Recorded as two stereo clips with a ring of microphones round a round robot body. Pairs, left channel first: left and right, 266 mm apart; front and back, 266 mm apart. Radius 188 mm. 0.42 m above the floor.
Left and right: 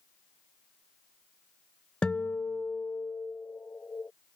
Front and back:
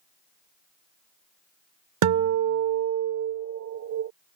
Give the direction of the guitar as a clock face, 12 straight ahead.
6 o'clock.